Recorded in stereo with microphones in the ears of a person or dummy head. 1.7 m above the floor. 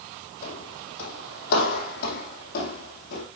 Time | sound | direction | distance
0.4 | footsteps | 55° left (ahead or behind) | 3 m